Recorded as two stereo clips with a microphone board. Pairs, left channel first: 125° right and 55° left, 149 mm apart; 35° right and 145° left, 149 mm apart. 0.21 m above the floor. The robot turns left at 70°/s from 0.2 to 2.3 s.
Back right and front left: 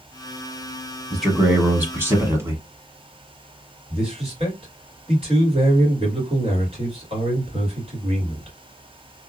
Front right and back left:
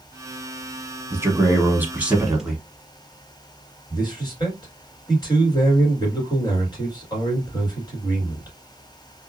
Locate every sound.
1.1 s a man speaking: 150° left, 1.0 m; by 2.6 s 70° left, 1.0 m
3.9 s a man speaking: 20° left, 2.5 m